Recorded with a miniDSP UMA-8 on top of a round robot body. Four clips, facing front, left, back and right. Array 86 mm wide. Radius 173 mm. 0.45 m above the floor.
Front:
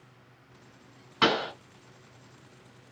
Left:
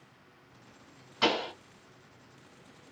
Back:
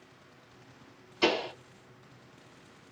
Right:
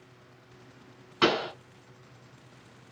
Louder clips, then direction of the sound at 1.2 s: Right 4 dB, front 3 dB; 35° right.